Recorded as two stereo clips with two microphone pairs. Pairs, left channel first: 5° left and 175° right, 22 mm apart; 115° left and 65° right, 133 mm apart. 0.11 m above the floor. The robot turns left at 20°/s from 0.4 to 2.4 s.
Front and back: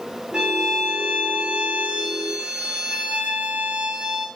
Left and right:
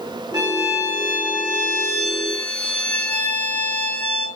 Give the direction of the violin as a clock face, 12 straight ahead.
4 o'clock.